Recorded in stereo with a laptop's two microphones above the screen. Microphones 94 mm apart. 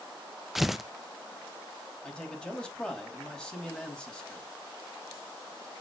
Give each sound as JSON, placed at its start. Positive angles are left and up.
{"t": 0.6, "sound": "tearing paper", "side_deg": -5, "distance_m": 0.7}
{"t": 2.0, "sound": "a man speaking", "side_deg": 10, "distance_m": 5.0}